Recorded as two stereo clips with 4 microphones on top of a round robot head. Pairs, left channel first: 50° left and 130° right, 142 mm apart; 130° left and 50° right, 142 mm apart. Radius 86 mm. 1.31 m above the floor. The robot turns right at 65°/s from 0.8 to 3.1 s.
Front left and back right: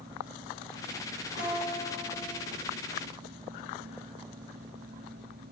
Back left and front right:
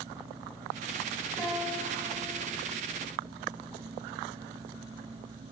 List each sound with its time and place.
1.4 s a guitar: 125° right, 1.6 m; by 2.4 s 55° right, 1.6 m